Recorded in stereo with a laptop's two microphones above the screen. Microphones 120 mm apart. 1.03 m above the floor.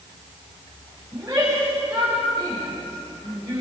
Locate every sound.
1.1 s a shout: 15° right (ahead or behind), 6 m